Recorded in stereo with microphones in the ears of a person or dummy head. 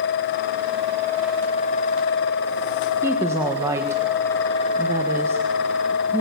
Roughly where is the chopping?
No chopping in this recording.